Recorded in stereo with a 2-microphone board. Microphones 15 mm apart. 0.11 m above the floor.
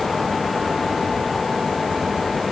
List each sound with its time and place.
Only background noise.